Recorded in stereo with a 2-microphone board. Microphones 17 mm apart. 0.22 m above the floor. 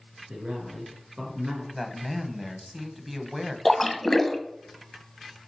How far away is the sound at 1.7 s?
About 1.1 m.